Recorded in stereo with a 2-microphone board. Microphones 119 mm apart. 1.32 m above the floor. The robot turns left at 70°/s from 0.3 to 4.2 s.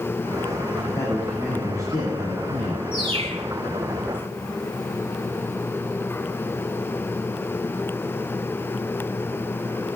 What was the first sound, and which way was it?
A man speaking, 45° left.